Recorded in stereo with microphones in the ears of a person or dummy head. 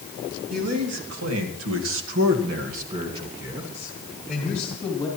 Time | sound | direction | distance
0.5 | a man speaking | 70° right (ahead or behind) | 3.5 m